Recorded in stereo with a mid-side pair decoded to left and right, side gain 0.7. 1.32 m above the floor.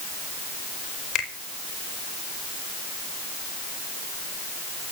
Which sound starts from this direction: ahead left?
A finger snap, at 1.1 s.